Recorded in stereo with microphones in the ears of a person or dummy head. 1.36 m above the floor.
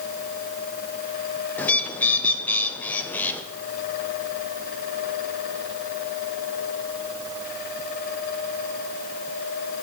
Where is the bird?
5° left (ahead or behind), 0.5 m.